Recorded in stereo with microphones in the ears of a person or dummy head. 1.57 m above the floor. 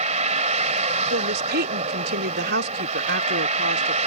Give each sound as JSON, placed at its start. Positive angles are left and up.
{"t": 0.0, "sound": "a vehicle", "side_deg": -40}
{"t": 1.1, "sound": "a woman speaking", "side_deg": -60}